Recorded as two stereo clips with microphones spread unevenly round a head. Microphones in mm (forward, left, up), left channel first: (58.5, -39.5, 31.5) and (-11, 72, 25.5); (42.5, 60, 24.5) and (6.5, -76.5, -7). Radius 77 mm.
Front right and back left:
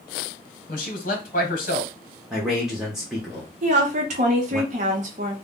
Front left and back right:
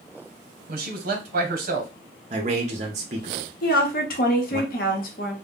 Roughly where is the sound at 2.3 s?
Behind right.